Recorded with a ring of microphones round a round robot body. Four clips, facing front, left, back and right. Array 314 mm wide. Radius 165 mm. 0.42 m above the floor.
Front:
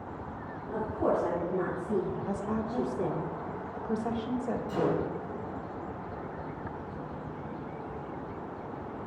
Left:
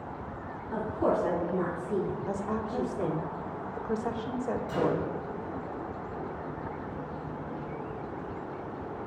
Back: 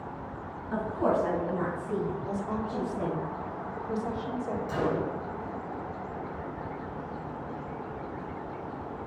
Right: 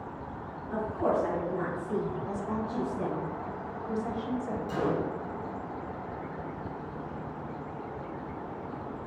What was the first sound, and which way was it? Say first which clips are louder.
A woman speaking: left 1 dB, back 2 dB; 175° right.